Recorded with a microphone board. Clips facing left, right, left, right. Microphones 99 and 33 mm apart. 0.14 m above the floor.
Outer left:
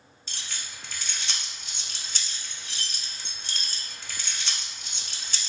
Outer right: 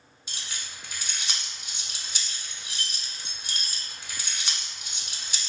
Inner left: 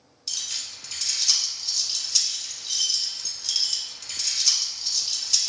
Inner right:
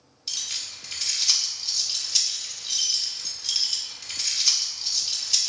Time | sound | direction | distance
0.3 | keys jangling | 15° right (ahead or behind) | 0.7 m